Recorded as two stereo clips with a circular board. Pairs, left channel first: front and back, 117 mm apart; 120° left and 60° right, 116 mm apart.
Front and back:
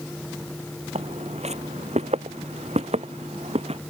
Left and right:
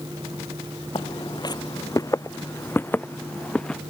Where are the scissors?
I don't hear scissors.